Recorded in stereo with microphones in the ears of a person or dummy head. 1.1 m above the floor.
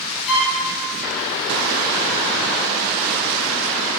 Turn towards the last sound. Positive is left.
turn(degrees=70)  # may be behind; listen again after turning